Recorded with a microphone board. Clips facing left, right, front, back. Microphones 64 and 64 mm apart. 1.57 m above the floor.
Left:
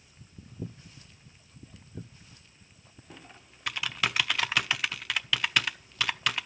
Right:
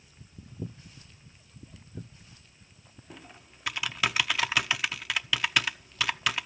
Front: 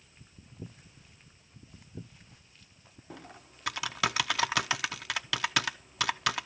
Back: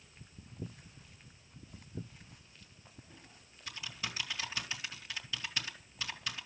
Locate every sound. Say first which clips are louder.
3.1 s typing on a keyboard: right 1 dB, front 10 dB; straight ahead, 0.6 m